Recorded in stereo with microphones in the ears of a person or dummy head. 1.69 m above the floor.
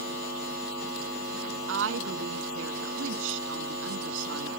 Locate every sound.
1.7 s a woman speaking: 75° right (ahead or behind)